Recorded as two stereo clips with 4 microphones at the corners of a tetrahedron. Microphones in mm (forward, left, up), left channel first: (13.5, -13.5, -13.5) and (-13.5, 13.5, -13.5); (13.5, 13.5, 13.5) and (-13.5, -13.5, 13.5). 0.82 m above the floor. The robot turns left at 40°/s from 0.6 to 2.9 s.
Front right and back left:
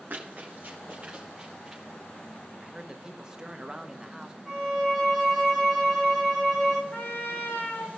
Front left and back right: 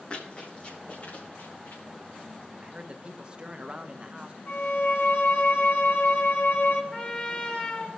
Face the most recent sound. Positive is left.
turn(degrees=-20)